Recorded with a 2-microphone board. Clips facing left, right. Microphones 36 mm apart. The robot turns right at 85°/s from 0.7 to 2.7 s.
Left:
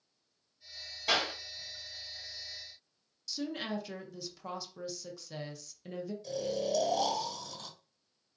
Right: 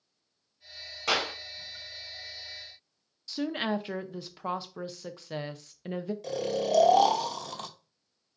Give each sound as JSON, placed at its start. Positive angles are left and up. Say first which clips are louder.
{"t": 1.1, "sound": "a clap", "louder": "right 2 dB", "side_deg": -80, "distance_m": 2.5}
{"t": 3.3, "sound": "a woman speaking", "louder": "right 6 dB", "side_deg": -35, "distance_m": 0.6}
{"t": 6.2, "sound": "snoring", "louder": "right 4 dB", "side_deg": -75, "distance_m": 0.8}